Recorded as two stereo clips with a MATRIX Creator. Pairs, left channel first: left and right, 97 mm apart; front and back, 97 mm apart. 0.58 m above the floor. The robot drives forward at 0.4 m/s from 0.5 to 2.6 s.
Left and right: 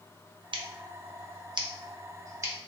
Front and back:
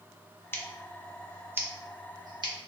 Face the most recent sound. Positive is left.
turn(degrees=-145)